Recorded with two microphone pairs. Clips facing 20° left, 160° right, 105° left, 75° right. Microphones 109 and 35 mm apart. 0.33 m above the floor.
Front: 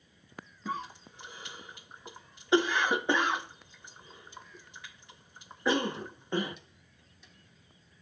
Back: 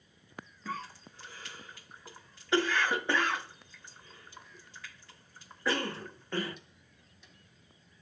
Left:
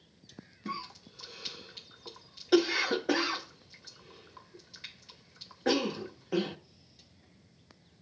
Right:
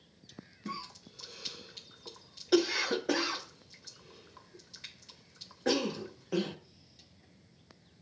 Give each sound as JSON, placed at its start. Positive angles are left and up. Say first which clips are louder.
{"t": 0.7, "sound": "a cough", "louder": "front 3 dB, left 3 dB", "azimuth_deg": 55, "distance_m": 1.0}